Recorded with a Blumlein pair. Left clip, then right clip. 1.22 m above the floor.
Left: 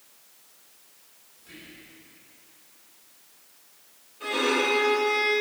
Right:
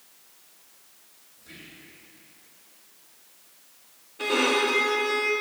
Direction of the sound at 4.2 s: 50° right.